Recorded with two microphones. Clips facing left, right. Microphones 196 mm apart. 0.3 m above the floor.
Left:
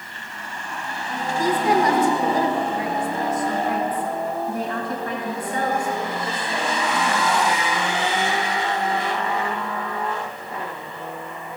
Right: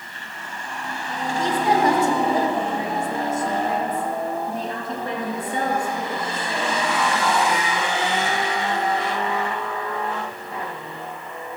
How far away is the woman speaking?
About 1.3 m.